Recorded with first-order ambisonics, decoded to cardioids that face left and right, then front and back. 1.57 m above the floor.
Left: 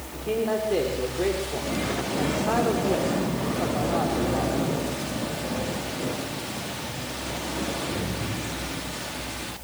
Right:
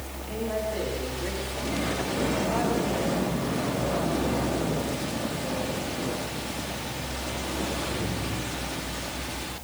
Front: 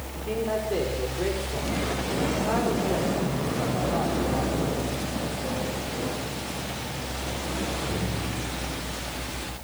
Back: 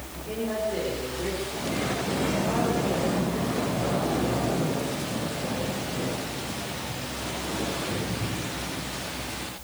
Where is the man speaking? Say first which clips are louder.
Left 6 dB, front 3 dB; 65° left, 5 m.